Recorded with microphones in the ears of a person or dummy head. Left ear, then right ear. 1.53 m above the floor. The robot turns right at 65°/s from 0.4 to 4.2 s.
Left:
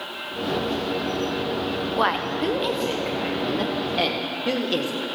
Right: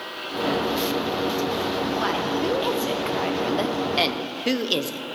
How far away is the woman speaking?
About 0.7 m.